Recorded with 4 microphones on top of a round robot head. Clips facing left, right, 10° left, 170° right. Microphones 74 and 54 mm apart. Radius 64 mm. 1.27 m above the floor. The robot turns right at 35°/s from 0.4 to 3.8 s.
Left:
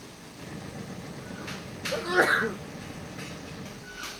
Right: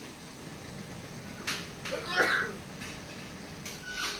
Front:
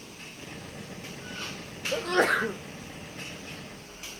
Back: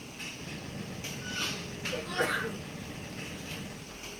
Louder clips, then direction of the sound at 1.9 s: Left 5 dB, front 7 dB; 25° left.